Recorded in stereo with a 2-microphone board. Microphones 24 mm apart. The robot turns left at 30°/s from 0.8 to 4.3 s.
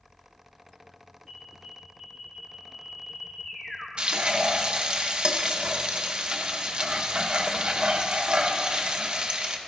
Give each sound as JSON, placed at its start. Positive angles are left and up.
{"t": 1.3, "sound": "an alarm", "azimuth_deg": -160, "distance_m": 4.0}
{"t": 4.0, "sound": "frying", "side_deg": -45, "distance_m": 0.8}